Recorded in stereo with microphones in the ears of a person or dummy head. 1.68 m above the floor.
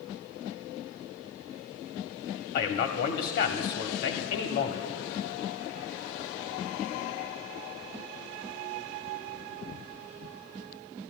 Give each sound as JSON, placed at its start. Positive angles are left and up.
{"t": 2.5, "sound": "a man speaking", "side_deg": 50, "distance_m": 0.8}